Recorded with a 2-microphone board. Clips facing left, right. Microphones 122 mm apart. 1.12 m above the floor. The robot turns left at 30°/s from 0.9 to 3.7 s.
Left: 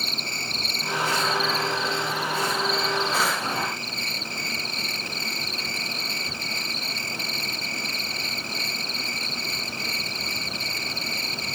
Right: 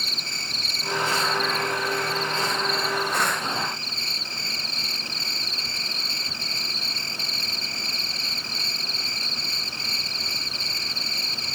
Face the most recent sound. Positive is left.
turn(degrees=-30)